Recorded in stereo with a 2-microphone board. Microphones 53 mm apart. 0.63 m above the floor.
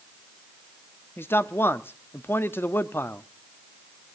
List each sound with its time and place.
1.2 s a man speaking: 45° left (ahead or behind), 0.7 m